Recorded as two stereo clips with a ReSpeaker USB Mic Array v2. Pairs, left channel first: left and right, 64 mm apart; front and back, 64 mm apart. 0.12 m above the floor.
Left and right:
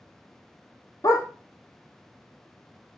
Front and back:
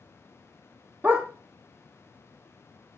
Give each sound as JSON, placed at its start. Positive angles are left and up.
{"t": 1.0, "sound": "a dog barking", "azimuth_deg": 120, "distance_m": 1.0}